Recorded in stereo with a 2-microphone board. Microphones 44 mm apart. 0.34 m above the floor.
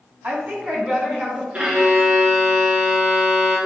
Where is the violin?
35° right (ahead or behind), 3 m.